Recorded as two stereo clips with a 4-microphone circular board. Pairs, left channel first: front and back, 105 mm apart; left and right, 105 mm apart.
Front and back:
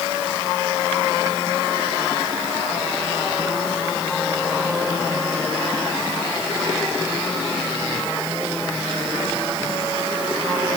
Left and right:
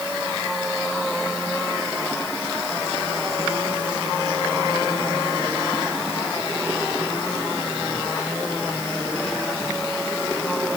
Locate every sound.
Only background noise.